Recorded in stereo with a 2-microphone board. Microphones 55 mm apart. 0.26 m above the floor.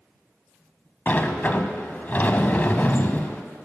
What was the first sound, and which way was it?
A sliding door, 35° left (ahead or behind).